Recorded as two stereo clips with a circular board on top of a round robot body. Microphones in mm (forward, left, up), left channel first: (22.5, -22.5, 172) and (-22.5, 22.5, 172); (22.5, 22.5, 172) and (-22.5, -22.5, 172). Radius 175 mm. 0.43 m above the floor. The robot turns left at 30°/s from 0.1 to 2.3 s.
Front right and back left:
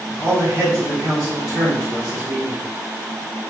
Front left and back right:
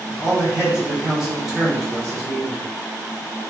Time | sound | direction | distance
0.2 | a man speaking | 170° left | 1.5 m